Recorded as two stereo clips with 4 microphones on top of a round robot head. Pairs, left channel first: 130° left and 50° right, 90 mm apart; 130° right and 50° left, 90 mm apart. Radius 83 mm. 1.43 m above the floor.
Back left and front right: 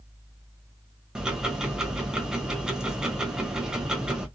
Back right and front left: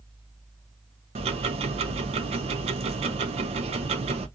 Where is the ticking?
35° left, 0.5 m.